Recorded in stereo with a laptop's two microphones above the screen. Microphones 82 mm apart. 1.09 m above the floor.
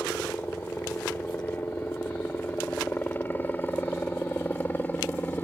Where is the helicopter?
20° left (ahead or behind).